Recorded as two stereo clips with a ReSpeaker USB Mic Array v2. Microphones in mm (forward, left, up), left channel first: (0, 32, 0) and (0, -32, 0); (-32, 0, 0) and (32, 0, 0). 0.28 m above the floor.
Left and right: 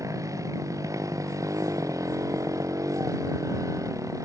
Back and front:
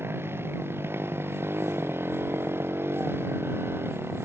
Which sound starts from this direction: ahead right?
A motorcycle, at 0.0 s.